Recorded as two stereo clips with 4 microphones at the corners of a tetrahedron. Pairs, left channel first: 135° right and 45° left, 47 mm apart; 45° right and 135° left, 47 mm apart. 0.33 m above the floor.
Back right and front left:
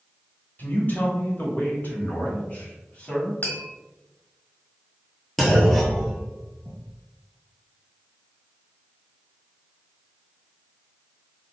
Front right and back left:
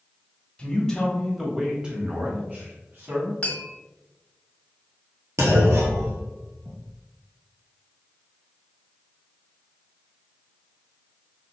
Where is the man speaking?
105° right, 1.2 m; by 3.3 s 170° left, 1.9 m.